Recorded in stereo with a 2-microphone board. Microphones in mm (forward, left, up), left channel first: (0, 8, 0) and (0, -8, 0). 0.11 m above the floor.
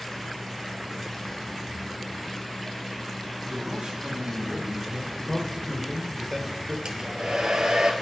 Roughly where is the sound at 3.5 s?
Right.